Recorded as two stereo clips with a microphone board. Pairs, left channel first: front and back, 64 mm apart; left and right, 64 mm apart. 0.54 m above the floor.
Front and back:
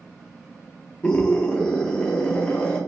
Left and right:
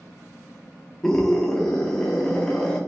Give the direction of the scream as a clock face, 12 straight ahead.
11 o'clock.